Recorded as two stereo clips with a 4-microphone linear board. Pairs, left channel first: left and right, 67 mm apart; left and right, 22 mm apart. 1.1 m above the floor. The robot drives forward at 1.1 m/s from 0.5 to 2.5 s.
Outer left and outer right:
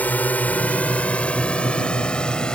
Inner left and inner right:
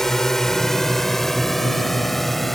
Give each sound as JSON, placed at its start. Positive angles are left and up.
{"t": 0.0, "sound": "a drone", "side_deg": 25}